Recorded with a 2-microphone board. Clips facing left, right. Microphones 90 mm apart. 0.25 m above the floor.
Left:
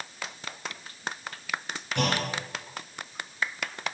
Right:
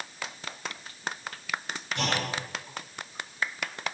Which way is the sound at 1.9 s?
60° left (ahead or behind).